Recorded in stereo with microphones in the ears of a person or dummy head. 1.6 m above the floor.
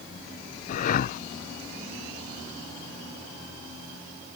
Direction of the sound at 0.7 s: 55° left (ahead or behind).